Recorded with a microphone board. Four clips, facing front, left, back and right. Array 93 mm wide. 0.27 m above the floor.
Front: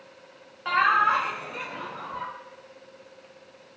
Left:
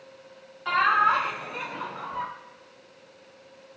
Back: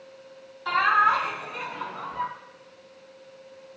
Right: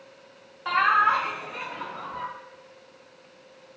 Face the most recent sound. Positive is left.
turn(degrees=95)